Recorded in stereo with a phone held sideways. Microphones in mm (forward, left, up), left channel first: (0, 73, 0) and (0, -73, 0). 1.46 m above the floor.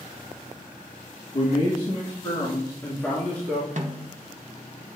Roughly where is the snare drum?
Right.